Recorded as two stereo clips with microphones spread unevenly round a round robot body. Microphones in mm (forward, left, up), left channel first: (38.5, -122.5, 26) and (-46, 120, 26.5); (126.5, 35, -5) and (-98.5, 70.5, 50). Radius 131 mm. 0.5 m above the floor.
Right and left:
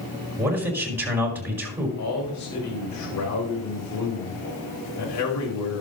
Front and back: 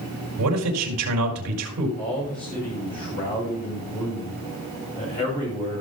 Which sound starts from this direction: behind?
A man speaking, at 0.4 s.